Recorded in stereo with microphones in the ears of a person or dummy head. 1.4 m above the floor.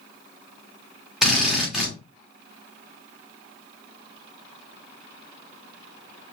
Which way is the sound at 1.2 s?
Centre (ahead or behind).